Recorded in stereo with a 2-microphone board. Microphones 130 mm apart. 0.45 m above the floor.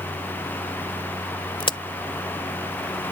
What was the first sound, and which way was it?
A crack, 40° left (ahead or behind).